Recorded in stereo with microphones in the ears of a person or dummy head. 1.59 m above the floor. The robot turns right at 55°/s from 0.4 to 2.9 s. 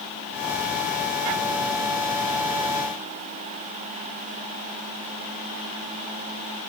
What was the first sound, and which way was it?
Only background noise.